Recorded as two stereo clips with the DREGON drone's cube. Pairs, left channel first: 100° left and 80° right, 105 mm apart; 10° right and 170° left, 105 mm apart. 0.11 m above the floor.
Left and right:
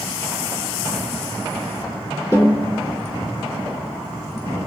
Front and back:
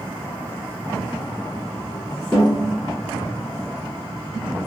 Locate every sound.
2.3 s a snare drum: 65° left, 1.6 m